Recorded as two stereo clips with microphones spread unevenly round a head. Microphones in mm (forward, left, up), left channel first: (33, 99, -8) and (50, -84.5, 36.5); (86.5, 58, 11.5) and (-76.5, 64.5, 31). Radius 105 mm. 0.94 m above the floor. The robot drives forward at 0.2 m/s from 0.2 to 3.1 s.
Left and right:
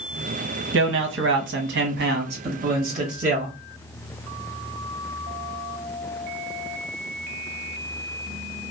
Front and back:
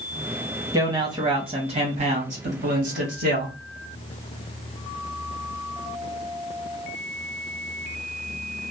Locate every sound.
0.7 s a man speaking: 110° right, 0.7 m; by 3.5 s 140° right, 0.9 m